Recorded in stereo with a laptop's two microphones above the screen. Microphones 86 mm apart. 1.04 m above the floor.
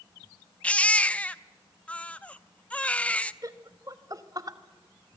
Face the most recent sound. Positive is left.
turn(degrees=-40)  # may be behind; listen again after turning